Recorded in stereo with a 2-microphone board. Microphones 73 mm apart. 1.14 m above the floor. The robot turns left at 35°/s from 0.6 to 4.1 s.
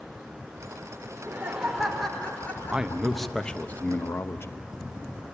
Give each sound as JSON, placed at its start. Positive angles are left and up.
{"t": 1.1, "sound": "laughter", "azimuth_deg": -150, "distance_m": 4.0}
{"t": 2.7, "sound": "a man speaking", "azimuth_deg": -165, "distance_m": 0.8}